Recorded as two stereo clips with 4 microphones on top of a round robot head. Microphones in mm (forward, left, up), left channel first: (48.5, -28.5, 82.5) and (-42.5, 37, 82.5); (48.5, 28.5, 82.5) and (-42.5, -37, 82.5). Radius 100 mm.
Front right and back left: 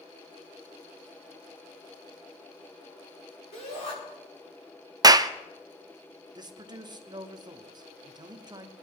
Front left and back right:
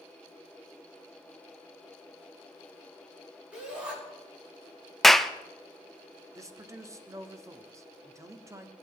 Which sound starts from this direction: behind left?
A clap, at 5.0 s.